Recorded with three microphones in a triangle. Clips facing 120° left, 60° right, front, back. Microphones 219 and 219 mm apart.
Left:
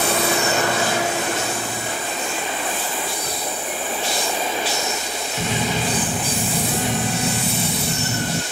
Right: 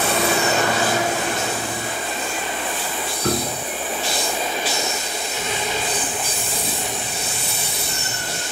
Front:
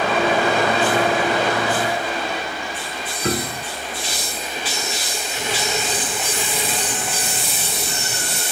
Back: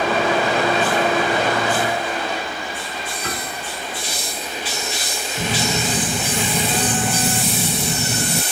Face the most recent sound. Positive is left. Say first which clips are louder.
# left 4 dB, back 3 dB
turn(degrees=140)